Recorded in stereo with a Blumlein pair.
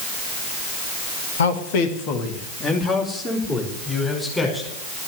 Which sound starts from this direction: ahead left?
A man speaking, at 1.4 s.